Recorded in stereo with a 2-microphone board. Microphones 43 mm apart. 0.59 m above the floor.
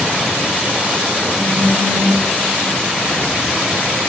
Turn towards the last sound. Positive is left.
turn(degrees=35)  # may be behind; listen again after turning